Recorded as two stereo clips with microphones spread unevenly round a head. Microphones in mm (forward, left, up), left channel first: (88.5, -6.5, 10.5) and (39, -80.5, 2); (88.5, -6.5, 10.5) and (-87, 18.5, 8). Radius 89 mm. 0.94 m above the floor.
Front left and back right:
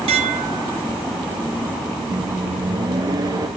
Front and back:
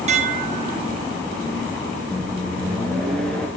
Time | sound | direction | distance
0.1 | dishes clattering | 135° right | 0.8 m
2.1 | a microwave | 95° right | 1.3 m